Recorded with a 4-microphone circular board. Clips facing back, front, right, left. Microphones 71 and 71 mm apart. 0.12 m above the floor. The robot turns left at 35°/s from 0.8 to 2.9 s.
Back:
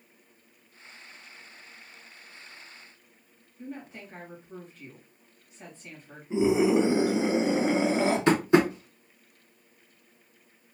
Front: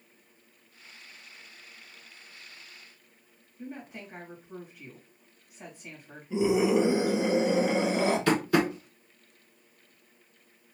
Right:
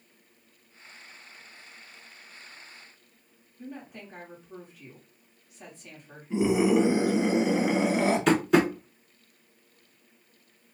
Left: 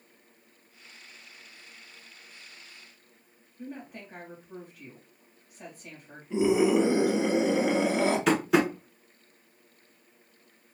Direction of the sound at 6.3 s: 175° right.